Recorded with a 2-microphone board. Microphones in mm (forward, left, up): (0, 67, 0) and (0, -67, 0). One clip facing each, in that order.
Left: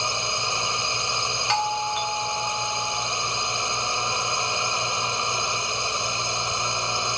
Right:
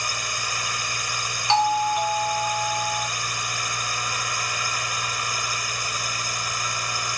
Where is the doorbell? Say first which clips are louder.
Right 6 dB; 30° right (ahead or behind).